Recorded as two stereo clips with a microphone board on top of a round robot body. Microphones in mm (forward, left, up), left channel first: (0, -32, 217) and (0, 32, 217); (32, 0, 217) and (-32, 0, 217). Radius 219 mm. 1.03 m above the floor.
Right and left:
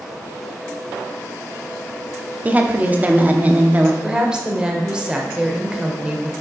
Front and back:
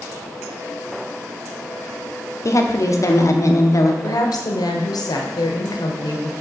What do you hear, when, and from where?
2.5 s a woman speaking: 30° left, 0.9 m
4.0 s a woman speaking: 15° left, 1.0 m